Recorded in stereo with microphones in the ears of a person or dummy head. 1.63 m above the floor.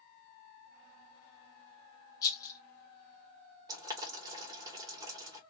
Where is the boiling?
25° right (ahead or behind), 1.8 m.